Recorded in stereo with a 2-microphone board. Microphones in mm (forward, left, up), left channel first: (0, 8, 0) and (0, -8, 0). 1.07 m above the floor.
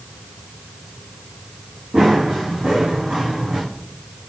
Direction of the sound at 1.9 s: 70° right (ahead or behind).